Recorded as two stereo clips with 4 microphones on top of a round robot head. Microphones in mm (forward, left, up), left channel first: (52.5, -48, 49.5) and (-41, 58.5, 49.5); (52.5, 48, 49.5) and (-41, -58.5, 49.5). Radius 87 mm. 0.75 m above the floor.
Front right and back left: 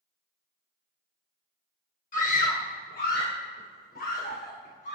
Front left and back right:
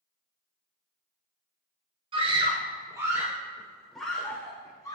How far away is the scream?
About 2.5 m.